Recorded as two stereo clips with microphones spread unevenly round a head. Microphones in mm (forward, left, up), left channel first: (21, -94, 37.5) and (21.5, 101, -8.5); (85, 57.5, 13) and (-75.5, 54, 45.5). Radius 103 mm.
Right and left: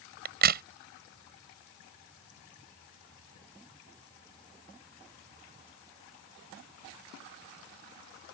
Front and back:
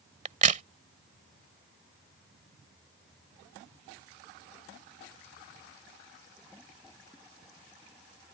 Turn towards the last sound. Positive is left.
turn(degrees=140)